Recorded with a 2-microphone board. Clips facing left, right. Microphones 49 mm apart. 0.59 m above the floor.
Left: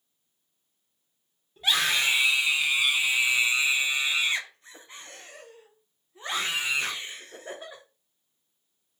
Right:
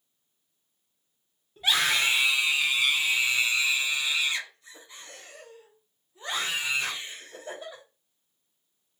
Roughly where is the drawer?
I don't hear a drawer.